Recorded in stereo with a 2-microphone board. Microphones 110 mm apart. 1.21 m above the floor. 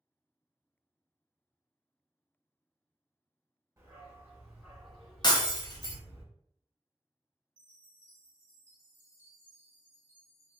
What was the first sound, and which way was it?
A dog barking, 25° right (ahead or behind).